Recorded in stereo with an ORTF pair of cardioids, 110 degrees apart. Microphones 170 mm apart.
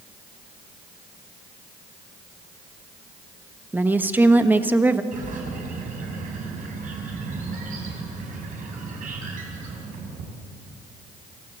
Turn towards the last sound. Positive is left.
turn(degrees=-50)